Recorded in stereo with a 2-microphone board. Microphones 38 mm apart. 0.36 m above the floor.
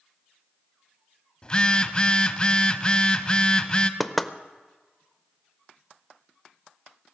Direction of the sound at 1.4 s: 25° left (ahead or behind).